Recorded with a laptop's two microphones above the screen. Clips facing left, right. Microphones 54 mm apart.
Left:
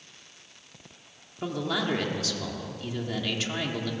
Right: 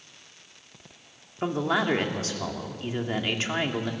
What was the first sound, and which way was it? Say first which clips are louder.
A man speaking: right 4 dB; 35° right (ahead or behind).